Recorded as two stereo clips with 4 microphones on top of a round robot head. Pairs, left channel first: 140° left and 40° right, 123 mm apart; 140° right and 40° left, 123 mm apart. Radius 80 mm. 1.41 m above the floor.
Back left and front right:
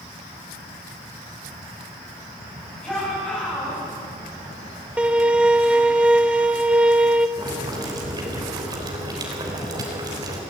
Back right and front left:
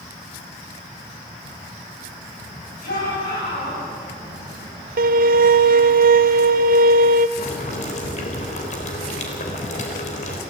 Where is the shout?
140° right, 9.5 m.